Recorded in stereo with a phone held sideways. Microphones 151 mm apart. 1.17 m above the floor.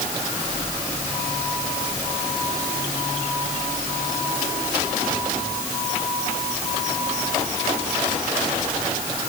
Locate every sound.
Only background noise.